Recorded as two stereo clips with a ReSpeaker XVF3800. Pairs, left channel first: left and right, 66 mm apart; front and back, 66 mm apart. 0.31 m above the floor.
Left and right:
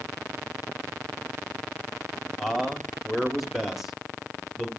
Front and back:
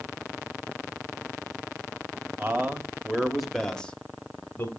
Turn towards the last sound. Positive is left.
turn(degrees=-5)